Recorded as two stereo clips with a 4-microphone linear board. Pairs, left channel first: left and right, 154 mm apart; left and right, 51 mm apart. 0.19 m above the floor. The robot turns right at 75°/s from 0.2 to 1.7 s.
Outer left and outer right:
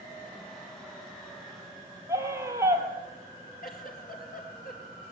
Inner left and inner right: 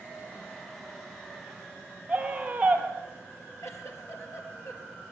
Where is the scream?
20° right (ahead or behind), 5.5 m.